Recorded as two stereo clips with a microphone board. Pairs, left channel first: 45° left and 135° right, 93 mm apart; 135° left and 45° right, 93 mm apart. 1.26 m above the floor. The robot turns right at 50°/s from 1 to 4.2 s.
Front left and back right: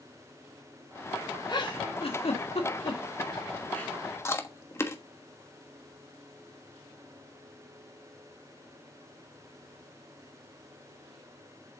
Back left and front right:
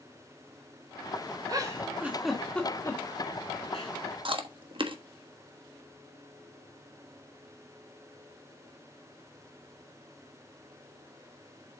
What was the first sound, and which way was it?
A giggle, straight ahead.